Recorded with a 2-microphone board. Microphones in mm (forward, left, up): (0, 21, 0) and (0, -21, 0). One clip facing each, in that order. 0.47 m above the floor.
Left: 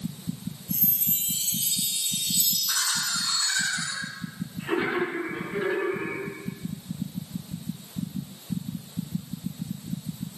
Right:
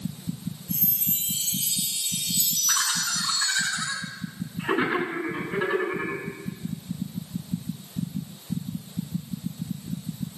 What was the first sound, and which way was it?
A chime, centre (ahead or behind).